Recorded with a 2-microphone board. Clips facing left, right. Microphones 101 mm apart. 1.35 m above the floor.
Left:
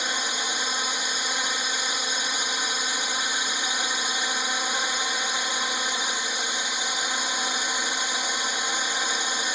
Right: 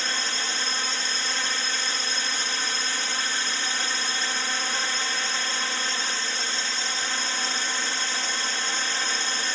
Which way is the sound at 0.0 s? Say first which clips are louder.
Left 1 dB; 15° left (ahead or behind).